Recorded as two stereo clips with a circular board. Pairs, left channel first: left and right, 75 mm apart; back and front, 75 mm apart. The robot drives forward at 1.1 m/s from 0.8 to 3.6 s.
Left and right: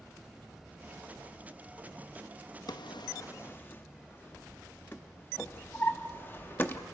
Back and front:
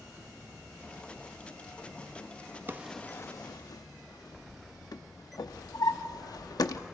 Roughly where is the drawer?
Ahead left.